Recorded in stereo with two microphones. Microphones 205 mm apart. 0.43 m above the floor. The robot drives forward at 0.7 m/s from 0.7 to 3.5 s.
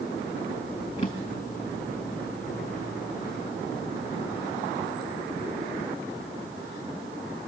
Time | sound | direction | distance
1.0 | a drawer | 25° left (ahead or behind) | 4 m